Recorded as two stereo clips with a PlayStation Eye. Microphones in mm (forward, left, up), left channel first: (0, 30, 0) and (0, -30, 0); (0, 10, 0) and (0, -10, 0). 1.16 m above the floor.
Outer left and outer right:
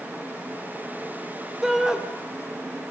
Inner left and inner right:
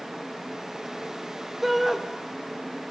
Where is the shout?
5° right (ahead or behind), 3.5 m.